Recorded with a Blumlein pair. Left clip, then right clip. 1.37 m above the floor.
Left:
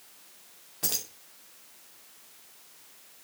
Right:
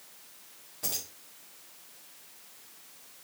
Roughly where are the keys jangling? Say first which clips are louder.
Left 4 dB; ahead left.